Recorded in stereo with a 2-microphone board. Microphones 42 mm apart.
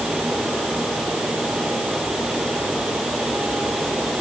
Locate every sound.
Only background noise.